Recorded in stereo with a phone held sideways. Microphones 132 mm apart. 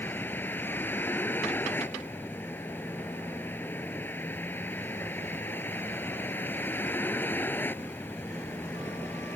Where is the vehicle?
15° left (ahead or behind).